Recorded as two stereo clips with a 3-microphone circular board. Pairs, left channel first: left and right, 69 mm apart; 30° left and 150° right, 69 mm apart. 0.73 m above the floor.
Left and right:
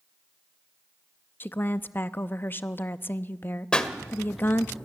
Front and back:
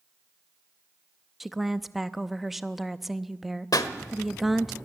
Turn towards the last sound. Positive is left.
turn(degrees=15)